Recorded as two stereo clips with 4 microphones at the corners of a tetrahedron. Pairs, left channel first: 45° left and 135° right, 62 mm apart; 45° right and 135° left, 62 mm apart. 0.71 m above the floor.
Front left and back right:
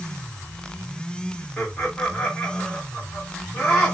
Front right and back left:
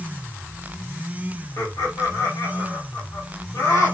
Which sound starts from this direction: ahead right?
Laughter, at 1.6 s.